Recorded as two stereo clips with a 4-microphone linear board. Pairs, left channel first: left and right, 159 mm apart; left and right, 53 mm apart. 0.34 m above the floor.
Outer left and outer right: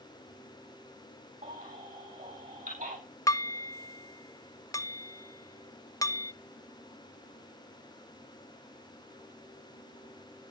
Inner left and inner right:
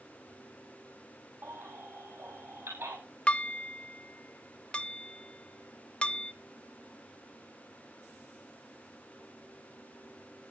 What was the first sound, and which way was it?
A baby crying, 55° right (ahead or behind).